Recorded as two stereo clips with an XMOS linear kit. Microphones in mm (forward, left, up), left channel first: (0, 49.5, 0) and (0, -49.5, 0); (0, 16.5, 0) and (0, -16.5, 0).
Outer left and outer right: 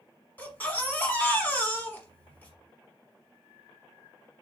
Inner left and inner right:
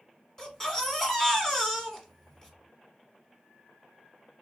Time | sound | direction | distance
0.4 | a baby crying | 20° left (ahead or behind) | 1.1 m